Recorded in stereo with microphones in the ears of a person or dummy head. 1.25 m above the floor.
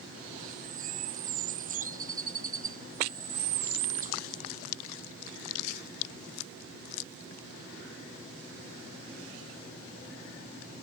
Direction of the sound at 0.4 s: 45° right (ahead or behind).